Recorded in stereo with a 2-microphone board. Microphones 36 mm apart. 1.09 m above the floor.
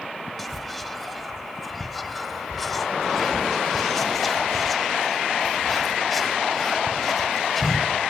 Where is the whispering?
Centre (ahead or behind), 0.7 m.